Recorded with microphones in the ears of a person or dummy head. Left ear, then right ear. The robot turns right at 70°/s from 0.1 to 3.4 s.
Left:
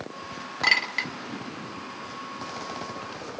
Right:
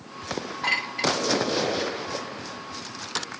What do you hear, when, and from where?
0.6 s a clink: 50° left (ahead or behind), 1.0 m; by 1.1 s 60° left (ahead or behind), 1.0 m